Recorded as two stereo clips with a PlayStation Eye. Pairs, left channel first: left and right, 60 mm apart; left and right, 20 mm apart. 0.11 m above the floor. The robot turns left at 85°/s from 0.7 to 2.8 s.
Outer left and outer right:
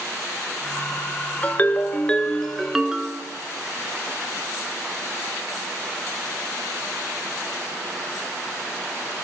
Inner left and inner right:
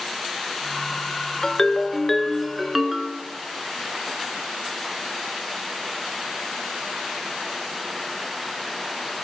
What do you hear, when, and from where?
1.4 s a ringtone: 25° left (ahead or behind), 0.5 m; by 3.2 s 10° right (ahead or behind), 0.5 m